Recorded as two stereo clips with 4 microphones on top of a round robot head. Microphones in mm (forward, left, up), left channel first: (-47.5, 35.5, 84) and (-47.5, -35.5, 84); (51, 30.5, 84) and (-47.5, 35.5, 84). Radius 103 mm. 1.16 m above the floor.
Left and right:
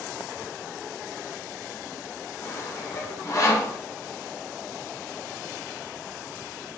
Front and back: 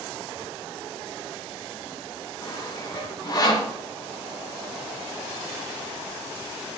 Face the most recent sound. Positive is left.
turn(degrees=45)